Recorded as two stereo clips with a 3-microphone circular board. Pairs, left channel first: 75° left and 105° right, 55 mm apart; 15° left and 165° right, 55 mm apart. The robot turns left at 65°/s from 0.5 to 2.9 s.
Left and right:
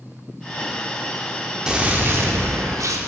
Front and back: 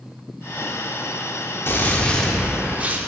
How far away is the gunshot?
About 0.6 m.